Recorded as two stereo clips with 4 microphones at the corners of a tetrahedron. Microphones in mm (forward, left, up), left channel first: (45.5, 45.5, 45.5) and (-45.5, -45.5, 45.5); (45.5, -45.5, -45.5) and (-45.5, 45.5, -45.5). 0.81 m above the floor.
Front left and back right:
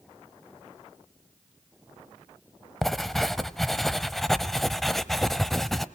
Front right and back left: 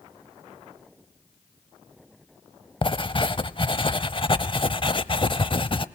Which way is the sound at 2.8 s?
40° right.